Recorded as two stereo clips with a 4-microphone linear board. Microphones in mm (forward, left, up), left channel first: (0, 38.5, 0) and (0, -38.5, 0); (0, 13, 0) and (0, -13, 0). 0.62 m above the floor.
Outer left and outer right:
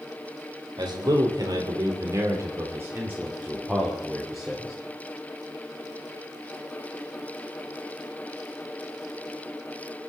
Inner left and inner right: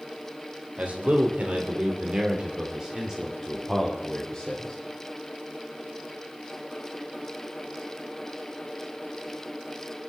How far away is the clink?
I don't hear a clink.